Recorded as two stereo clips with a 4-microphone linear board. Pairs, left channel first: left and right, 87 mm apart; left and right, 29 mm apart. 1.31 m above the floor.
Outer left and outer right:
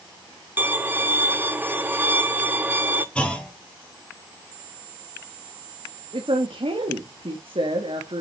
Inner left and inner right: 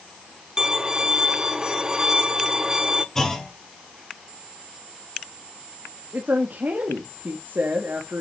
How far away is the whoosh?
I don't hear a whoosh.